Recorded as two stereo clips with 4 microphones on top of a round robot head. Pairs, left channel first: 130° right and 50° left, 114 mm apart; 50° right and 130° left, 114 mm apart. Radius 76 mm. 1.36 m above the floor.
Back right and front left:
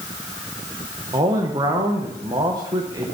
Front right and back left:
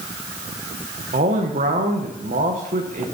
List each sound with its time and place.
1.1 s a man speaking: 110° left, 1.0 m